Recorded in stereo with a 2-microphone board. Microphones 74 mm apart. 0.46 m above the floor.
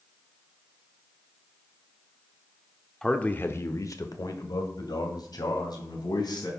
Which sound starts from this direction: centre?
A man speaking, at 3.0 s.